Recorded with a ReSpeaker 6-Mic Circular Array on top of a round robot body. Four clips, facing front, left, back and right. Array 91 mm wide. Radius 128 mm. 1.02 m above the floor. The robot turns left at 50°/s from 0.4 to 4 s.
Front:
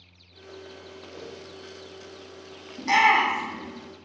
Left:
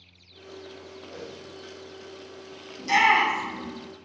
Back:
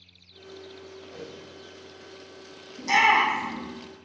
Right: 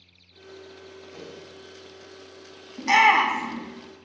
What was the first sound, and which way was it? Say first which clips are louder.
A whoosh: left 2 dB, front 1 dB; 95° left.